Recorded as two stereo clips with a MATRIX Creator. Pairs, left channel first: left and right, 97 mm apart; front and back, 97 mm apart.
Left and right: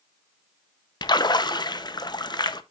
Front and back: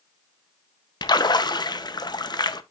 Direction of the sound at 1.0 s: 45° left.